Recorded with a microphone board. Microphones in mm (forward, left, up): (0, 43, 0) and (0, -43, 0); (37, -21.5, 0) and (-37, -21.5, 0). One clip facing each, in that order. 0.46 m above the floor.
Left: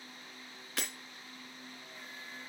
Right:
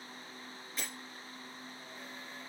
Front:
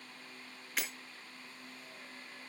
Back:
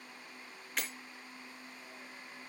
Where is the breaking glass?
90° left, 3 m.